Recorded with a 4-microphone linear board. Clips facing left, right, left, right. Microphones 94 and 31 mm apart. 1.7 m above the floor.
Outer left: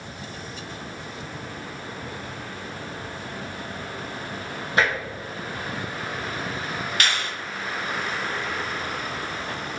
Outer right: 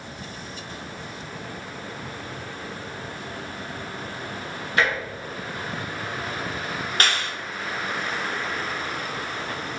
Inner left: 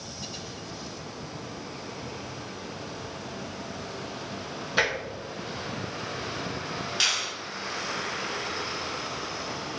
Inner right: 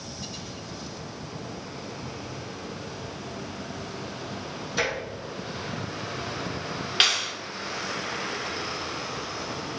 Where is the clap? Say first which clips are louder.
Outer right 2 dB, inner right 4 dB; 40° right (ahead or behind), 0.9 m.